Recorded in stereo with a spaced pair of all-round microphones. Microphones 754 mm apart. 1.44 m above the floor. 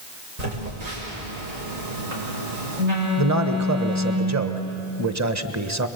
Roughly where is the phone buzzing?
Right.